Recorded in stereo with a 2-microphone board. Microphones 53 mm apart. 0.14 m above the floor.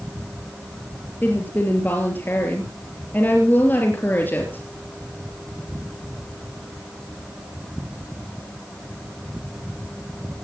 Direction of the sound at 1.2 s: 40° left (ahead or behind).